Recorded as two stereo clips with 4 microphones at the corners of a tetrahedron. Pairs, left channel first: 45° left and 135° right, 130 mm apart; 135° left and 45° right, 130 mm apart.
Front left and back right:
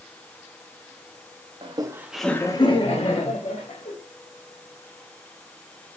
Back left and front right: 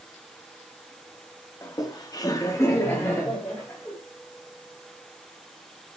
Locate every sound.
1.6 s laughter: 170° right, 0.7 m; by 3.9 s 55° left, 1.5 m